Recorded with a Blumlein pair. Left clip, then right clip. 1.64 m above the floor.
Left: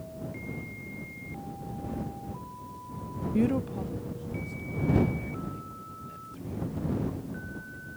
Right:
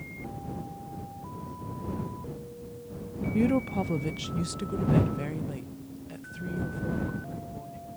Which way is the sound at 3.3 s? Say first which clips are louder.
Right 2 dB; straight ahead.